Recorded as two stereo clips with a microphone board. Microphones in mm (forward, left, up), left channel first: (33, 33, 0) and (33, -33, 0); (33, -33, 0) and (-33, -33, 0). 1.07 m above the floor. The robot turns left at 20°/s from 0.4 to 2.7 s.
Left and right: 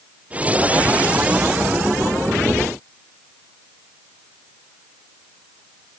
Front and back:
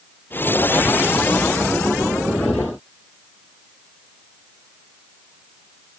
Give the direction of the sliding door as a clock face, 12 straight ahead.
I don't hear a sliding door.